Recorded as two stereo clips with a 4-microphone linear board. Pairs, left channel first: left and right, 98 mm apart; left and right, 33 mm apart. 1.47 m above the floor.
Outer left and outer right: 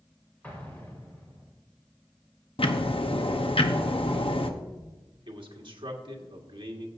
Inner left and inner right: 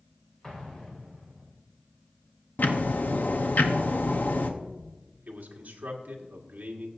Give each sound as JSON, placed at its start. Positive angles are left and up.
{"t": 0.4, "sound": "an explosion", "side_deg": 15, "distance_m": 2.5}
{"t": 2.6, "sound": "ticking", "side_deg": 70, "distance_m": 0.9}
{"t": 5.3, "sound": "a man speaking", "side_deg": -55, "distance_m": 1.7}